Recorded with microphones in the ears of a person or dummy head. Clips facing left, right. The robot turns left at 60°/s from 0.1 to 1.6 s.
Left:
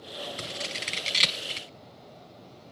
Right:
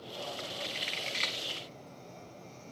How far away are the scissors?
About 1.6 m.